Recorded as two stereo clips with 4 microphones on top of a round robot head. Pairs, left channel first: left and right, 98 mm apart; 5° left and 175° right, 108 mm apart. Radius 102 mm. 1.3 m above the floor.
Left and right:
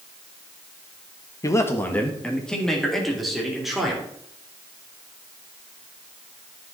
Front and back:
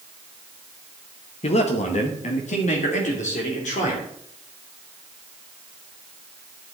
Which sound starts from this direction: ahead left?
A man speaking, at 1.4 s.